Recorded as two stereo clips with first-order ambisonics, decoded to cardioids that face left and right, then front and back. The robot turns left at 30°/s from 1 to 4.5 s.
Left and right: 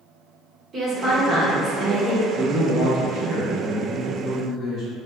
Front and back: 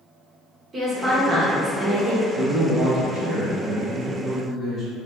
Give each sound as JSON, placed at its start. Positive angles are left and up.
{"t": 0.7, "sound": "a woman speaking", "azimuth_deg": -130, "distance_m": 0.8}
{"t": 2.3, "sound": "a man speaking", "azimuth_deg": -140, "distance_m": 1.1}